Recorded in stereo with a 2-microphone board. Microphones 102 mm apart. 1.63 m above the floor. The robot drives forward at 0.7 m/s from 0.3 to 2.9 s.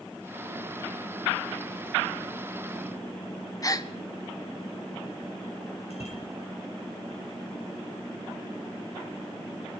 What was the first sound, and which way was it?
A gasp, 35° left (ahead or behind).